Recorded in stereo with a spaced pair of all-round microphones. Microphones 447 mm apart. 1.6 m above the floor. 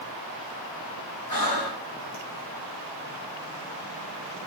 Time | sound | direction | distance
1.3 | breathing | 50° left (ahead or behind) | 1.0 m